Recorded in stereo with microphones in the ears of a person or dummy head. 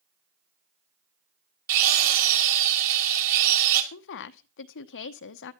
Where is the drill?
50° right (ahead or behind), 3 m.